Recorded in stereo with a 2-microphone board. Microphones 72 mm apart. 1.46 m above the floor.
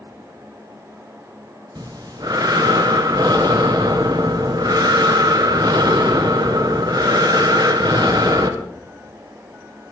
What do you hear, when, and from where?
1.8 s breathing: 65° right (ahead or behind), 1.2 m